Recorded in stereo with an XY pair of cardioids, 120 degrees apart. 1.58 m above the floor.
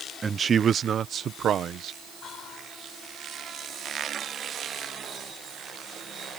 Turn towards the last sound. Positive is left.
turn(degrees=55)